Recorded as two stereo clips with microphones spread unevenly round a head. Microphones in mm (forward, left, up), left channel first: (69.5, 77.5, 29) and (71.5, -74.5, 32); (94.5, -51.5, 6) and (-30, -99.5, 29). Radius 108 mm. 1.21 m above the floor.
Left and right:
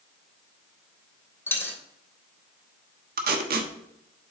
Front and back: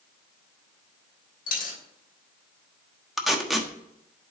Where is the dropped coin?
15° left, 2.5 m.